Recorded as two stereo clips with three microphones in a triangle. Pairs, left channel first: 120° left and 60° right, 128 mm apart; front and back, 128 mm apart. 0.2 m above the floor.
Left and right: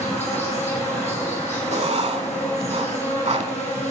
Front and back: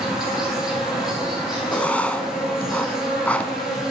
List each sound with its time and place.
0.0 s an insect: 95° left, 3 m
1.7 s writing: 80° right, 0.7 m